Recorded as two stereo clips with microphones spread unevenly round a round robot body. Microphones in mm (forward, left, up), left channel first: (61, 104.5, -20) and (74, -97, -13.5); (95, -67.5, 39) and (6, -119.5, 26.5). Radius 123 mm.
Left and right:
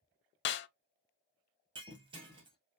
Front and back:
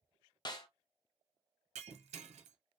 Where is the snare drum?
85° left, 0.6 m.